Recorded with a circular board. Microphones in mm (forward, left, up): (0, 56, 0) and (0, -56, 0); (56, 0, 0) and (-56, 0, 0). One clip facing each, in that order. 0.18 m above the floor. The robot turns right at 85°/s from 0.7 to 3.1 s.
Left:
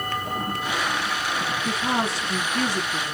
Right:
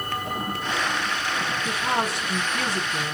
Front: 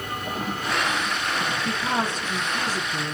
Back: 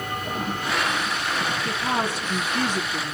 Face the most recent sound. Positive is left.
turn(degrees=-35)